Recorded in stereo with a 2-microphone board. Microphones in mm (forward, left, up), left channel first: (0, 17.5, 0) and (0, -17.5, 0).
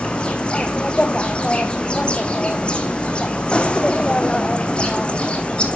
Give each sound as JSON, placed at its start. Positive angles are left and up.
{"t": 0.0, "sound": "an insect", "side_deg": 30, "distance_m": 1.7}